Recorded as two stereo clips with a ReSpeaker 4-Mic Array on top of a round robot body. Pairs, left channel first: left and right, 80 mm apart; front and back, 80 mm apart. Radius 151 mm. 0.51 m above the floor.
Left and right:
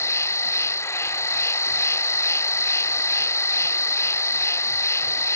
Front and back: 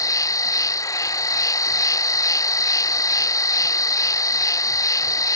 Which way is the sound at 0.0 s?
40° left.